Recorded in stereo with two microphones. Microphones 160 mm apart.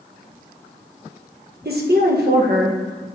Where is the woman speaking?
70° right (ahead or behind), 1.3 m.